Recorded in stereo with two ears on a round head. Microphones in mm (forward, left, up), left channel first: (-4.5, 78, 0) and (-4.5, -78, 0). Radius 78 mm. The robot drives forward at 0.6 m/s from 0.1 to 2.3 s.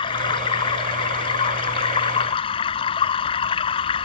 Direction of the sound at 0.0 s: 30° left (ahead or behind).